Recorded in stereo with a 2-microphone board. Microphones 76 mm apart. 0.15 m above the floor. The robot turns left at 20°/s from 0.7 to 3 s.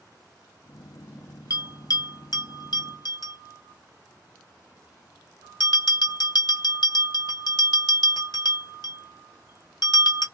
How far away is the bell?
About 1.1 m.